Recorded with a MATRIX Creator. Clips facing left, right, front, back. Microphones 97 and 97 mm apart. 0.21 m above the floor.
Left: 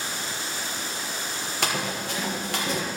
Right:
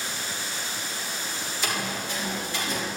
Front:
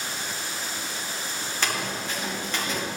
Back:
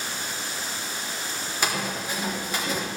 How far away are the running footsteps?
About 4.5 m.